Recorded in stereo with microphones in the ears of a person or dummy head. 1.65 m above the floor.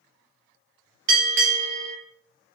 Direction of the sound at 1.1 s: 65° right (ahead or behind).